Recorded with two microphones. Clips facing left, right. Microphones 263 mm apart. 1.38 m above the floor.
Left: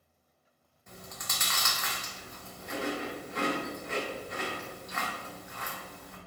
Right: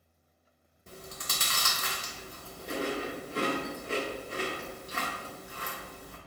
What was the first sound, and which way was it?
Chewing, 35° right (ahead or behind).